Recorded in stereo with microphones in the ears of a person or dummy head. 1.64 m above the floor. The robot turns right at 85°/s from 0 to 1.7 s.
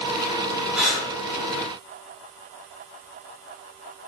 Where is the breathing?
10° right (ahead or behind), 1.8 m; by 1.1 s 15° left (ahead or behind), 1.8 m.